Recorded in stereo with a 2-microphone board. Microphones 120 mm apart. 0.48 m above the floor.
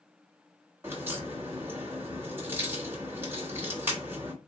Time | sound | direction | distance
0.8 | a crack | 20° right (ahead or behind) | 1.3 m